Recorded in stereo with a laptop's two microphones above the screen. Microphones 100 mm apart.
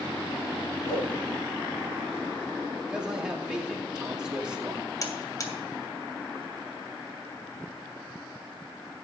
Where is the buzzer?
40° left (ahead or behind), 2.5 m.